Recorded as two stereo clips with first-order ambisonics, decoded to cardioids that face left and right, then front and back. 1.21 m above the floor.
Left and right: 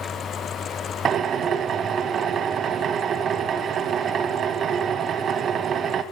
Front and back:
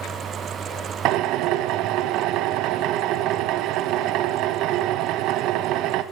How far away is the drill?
About 1.5 m.